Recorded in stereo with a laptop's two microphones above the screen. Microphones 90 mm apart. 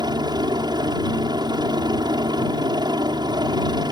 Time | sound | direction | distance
0.0 | a helicopter | 50° right (ahead or behind) | ?